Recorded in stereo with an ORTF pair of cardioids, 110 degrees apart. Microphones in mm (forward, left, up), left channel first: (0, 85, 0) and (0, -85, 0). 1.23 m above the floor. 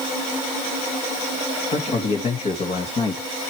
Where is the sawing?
No sawing in this recording.